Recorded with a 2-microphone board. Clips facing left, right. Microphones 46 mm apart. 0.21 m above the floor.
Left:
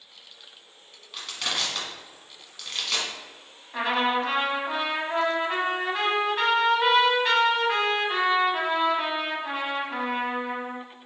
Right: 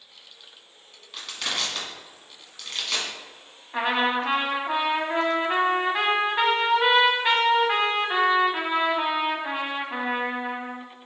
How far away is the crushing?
About 1.4 m.